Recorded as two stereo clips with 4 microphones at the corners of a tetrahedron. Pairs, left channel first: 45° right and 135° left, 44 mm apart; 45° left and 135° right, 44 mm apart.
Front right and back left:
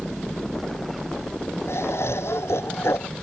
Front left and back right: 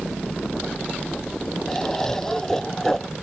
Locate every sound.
1.7 s laughter: 35° right